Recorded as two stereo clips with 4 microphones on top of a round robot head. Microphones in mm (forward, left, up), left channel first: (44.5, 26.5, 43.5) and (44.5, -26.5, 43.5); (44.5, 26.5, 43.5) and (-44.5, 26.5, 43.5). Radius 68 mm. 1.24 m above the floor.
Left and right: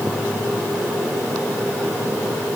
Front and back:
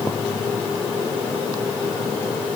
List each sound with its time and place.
Only background noise.